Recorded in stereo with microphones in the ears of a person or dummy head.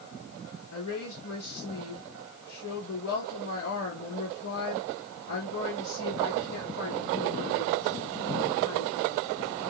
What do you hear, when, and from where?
0.7 s a woman speaking: 70° left (ahead or behind), 2.0 m